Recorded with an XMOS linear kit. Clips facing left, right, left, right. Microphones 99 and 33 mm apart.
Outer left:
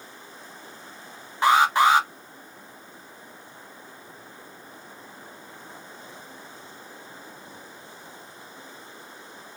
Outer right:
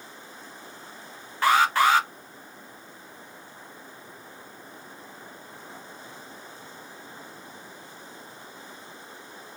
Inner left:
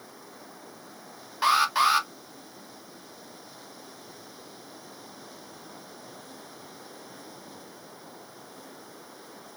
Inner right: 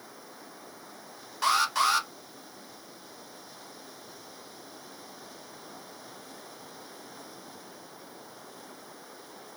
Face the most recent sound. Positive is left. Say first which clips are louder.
# outer left 2 dB, inner left 3 dB
turn(degrees=20)  # may be behind; listen again after turning